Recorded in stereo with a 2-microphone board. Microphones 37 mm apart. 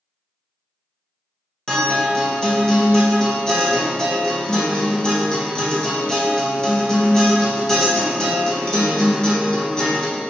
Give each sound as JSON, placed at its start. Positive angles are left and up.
{"t": 1.7, "sound": "a guitar", "side_deg": 20, "distance_m": 1.1}